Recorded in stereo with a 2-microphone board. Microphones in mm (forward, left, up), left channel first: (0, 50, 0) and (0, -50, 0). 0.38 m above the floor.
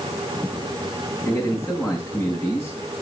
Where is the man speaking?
10° left (ahead or behind), 4.5 m.